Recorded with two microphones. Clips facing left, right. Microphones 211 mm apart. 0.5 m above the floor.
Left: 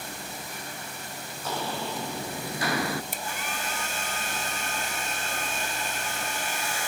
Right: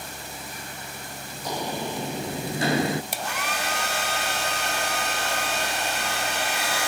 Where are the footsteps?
15° right (ahead or behind), 1.3 m; by 3.0 s 20° right (ahead or behind), 0.5 m.